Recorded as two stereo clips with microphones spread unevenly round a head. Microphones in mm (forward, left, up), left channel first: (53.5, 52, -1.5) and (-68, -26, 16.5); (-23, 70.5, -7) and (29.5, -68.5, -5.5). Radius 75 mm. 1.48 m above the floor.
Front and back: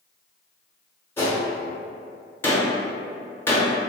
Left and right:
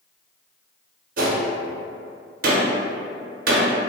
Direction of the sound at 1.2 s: 45° right.